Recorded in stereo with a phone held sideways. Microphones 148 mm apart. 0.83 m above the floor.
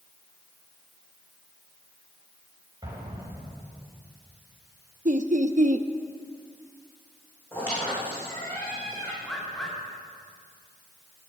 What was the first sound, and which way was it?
An explosion, 25° right (ahead or behind).